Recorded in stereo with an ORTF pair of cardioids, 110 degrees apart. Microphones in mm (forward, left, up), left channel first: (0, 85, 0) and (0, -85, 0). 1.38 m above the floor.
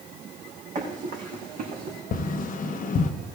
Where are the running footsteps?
45° right, 4.5 m; by 2.0 s 55° right, 5 m.